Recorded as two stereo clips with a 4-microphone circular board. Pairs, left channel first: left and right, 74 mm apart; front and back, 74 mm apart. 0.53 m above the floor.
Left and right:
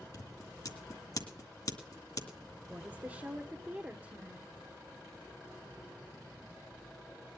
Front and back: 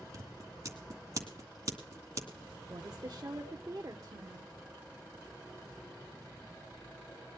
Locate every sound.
0.1 s scissors: 130° left, 2 m
2.7 s a woman speaking: 150° right, 1.0 m